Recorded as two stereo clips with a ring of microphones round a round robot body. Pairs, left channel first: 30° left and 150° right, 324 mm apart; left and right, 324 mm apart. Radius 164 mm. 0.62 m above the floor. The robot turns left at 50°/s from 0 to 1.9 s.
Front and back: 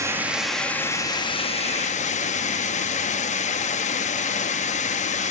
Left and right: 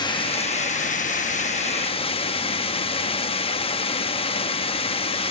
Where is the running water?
145° left, 0.9 m; by 5.3 s 50° left, 0.9 m.